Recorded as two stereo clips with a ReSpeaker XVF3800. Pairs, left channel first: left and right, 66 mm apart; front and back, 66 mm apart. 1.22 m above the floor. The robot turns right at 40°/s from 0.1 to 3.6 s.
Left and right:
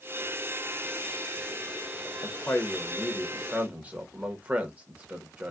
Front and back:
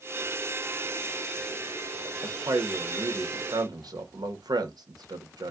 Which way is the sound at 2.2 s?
145° left.